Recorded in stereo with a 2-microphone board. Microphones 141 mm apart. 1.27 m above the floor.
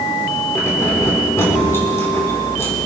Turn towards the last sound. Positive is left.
turn(degrees=15)  # may be behind; listen again after turning